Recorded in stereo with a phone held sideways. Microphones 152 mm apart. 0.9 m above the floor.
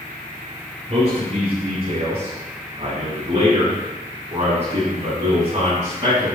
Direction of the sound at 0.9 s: 45° right (ahead or behind).